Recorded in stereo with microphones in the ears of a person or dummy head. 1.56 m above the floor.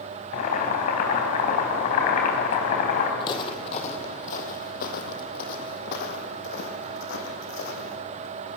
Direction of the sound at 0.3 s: 50° left (ahead or behind).